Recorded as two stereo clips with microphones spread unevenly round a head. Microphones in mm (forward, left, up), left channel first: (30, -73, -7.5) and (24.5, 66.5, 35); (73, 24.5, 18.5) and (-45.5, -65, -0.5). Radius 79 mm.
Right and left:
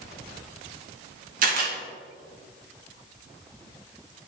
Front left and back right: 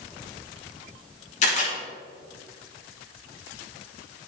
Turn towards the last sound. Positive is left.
turn(degrees=80)